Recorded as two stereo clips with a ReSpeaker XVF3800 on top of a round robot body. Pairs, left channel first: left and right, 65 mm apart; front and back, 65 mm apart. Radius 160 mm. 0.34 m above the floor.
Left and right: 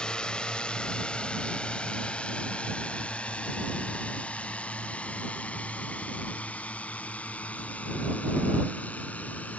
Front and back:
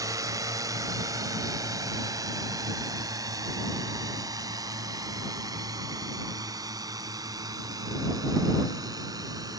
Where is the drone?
165° left; by 9.6 s 155° left.